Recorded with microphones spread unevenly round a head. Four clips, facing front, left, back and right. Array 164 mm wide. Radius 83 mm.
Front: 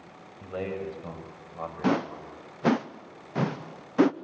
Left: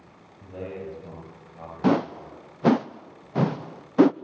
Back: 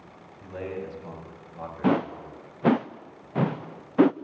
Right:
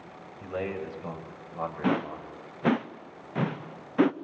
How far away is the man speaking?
About 8 m.